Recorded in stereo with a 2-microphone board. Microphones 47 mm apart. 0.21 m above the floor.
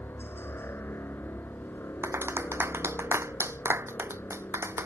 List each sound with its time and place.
0.0 s a helicopter: 60° left (ahead or behind)
2.0 s a clap: 65° right (ahead or behind)